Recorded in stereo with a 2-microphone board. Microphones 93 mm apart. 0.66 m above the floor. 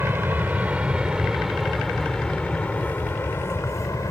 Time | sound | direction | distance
0.0 | an aircraft | 25° right (ahead or behind) | ?